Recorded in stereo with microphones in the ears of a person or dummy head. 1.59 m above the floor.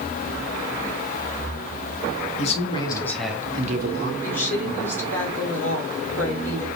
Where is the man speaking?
40° left (ahead or behind), 1.5 m; by 4.1 s 60° right (ahead or behind), 1.1 m.